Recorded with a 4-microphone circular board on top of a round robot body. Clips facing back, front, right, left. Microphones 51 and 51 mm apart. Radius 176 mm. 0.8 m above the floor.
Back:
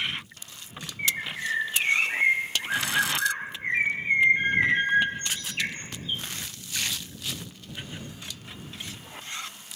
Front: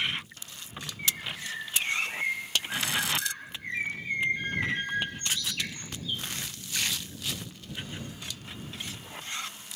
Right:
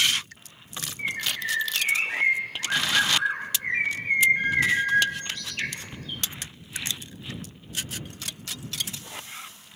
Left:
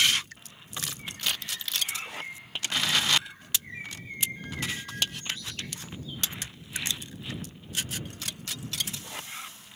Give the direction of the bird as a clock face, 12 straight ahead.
4 o'clock.